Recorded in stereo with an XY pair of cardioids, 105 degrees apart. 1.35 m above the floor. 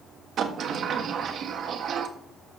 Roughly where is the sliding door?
Ahead right.